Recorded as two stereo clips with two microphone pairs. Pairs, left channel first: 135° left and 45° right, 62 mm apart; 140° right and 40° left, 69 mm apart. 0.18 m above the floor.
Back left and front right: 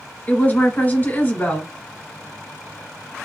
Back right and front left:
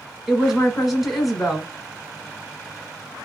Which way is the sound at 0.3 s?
120° left.